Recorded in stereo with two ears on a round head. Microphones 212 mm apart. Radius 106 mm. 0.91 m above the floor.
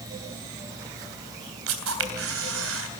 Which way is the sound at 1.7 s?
60° right (ahead or behind).